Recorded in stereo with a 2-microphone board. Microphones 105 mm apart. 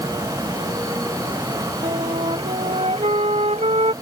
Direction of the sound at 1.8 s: 75° right (ahead or behind).